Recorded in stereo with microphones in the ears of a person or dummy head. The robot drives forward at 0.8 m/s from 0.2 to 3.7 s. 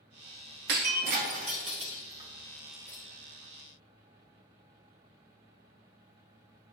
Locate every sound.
0.7 s breaking glass: 45° right (ahead or behind), 1.0 m; by 3.0 s 20° right (ahead or behind), 2 m